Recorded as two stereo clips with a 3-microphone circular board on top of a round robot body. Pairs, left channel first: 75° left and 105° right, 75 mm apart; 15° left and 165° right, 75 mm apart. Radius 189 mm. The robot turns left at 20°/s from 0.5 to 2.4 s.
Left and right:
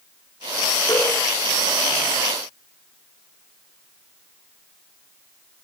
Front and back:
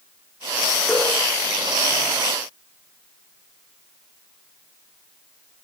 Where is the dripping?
110° left, 10 m; by 1.1 s 105° left, 10 m.